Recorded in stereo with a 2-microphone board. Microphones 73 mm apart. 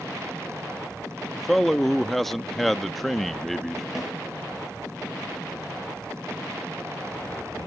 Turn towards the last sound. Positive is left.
turn(degrees=-5)  # may be behind; listen again after turning